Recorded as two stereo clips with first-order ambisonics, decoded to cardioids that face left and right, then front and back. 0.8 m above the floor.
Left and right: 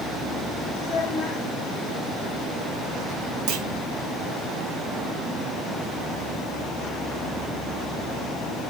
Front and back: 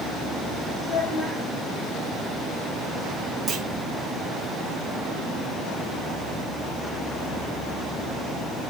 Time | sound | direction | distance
0.8 | a child speaking | 45° left | 2.5 m
3.5 | a clunk | 105° right | 1.2 m